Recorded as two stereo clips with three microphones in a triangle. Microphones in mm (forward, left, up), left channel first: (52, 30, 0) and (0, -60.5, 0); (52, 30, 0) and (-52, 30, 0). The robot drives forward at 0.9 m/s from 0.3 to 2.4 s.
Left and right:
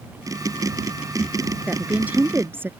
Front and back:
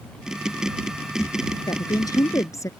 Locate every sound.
1.7 s a woman speaking: 40° right; by 2.7 s 55° right